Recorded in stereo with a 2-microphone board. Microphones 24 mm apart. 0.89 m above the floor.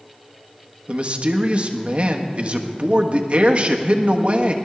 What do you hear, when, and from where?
0.9 s a man speaking: 45° right (ahead or behind), 1.3 m